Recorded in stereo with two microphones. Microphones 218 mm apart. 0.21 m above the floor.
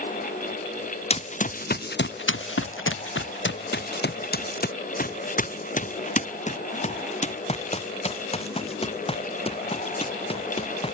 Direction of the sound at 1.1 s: 30° left (ahead or behind).